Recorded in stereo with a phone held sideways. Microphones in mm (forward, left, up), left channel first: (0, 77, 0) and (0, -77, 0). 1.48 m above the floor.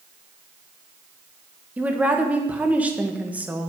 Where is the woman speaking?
10° right (ahead or behind), 1.3 m.